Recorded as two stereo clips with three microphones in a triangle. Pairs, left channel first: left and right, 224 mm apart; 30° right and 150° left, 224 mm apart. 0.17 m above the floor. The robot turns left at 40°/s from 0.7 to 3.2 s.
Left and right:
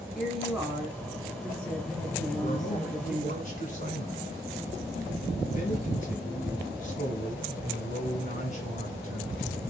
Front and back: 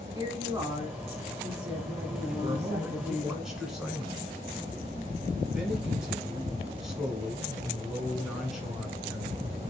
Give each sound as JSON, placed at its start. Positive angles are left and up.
{"t": 0.1, "sound": "a woman speaking", "azimuth_deg": -175, "distance_m": 1.1}
{"t": 2.4, "sound": "a man speaking", "azimuth_deg": 95, "distance_m": 1.4}